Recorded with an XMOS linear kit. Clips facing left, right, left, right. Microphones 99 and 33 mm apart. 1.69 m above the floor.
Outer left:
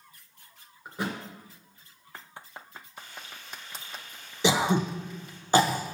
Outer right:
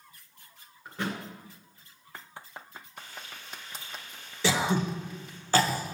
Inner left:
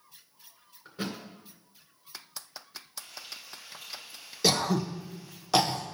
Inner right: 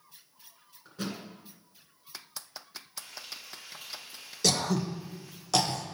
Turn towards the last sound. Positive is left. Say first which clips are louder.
# outer left 2 dB, inner left 2 dB
turn(degrees=20)  # may be behind; listen again after turning